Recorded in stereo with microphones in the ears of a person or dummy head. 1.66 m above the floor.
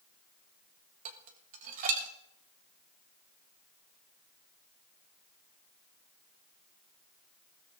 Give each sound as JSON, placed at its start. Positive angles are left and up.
{"t": 1.1, "sound": "dishes clattering", "side_deg": -40, "distance_m": 1.4}